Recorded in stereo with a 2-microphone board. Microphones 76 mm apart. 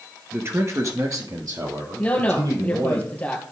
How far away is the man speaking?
About 1.3 m.